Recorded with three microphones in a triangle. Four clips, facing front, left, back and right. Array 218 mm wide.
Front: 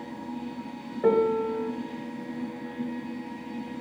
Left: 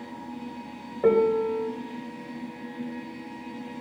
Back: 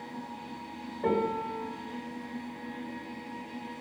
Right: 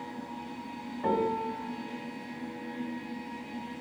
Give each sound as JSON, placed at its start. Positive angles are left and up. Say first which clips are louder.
{"t": 1.0, "sound": "a piano", "louder": "left 8 dB, front 7 dB", "azimuth_deg": 65, "distance_m": 3.0}